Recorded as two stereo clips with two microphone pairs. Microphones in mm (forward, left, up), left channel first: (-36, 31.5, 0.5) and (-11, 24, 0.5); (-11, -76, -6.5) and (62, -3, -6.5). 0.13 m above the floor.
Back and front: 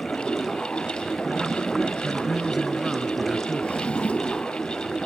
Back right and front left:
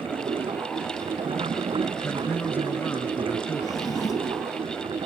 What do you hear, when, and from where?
0.0 s running water: 75° left
2.0 s a man speaking: 95° right
3.6 s a drawer: straight behind